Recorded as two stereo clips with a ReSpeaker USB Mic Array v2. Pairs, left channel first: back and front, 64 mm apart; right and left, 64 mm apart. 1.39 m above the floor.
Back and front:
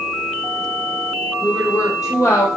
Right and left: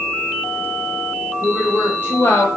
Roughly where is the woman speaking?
Behind right.